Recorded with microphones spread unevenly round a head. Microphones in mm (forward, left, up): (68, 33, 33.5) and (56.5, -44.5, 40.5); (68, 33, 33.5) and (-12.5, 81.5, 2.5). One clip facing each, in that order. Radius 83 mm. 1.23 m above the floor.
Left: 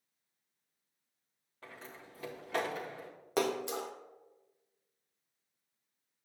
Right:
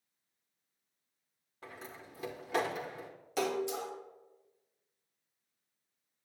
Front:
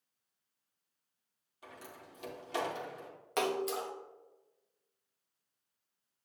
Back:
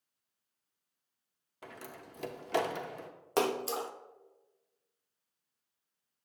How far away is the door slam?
About 0.5 m.